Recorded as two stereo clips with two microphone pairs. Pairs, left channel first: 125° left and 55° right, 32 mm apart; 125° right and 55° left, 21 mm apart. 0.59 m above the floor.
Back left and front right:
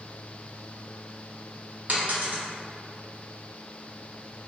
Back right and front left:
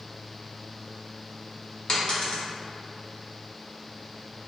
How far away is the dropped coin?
About 0.7 m.